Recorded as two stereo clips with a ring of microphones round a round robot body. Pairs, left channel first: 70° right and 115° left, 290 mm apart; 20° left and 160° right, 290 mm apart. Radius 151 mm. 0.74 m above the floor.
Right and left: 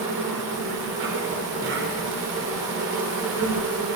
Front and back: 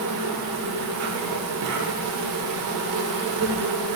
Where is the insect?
165° left, 1.6 m.